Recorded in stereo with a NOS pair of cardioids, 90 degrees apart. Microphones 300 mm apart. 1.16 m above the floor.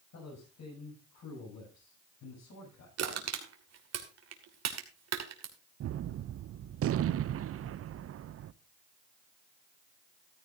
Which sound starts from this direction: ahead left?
A man speaking, at 0.1 s.